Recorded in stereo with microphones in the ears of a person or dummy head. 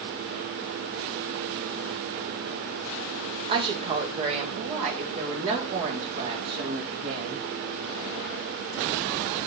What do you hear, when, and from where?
3.5 s a woman speaking: 30° right (ahead or behind), 1.2 m; by 7.5 s 40° right (ahead or behind), 4.5 m